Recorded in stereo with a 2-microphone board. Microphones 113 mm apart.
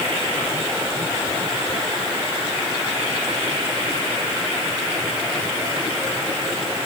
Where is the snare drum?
I don't hear a snare drum.